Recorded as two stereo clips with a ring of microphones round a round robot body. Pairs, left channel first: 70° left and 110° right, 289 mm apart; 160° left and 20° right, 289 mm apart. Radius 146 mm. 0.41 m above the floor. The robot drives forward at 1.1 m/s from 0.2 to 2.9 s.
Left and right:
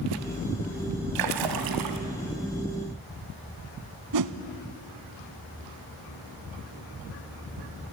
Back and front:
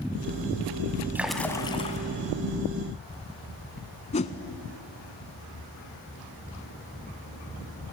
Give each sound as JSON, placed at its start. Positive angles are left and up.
{"t": 1.1, "sound": "a splash", "azimuth_deg": -105, "distance_m": 1.4}
{"t": 4.1, "sound": "a whoosh", "azimuth_deg": -135, "distance_m": 0.8}